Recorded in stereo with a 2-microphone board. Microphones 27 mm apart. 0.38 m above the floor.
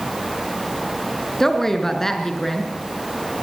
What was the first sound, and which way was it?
A woman speaking, 15° left (ahead or behind).